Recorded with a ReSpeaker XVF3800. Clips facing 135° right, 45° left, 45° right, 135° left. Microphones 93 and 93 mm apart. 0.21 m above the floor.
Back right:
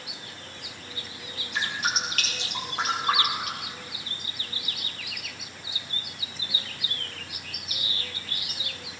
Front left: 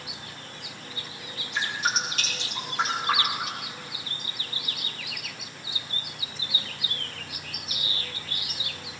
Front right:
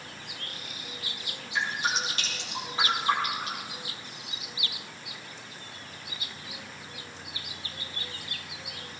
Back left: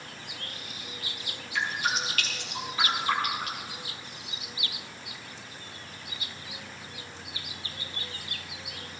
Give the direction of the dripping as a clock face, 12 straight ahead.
4 o'clock.